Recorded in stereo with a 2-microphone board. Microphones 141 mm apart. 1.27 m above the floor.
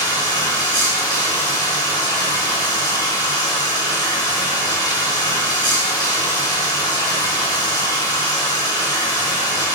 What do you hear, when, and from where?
0.0 s running water: 30° left (ahead or behind), 5 m